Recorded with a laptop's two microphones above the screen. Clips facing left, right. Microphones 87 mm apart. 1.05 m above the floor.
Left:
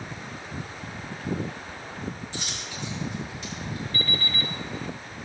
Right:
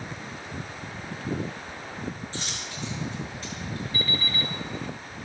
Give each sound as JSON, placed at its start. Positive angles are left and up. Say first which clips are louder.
{"t": 2.3, "sound": "a dropped coin", "louder": "even", "side_deg": -40, "distance_m": 6.0}
{"t": 3.9, "sound": "an alarm clock", "louder": "even", "side_deg": -15, "distance_m": 1.5}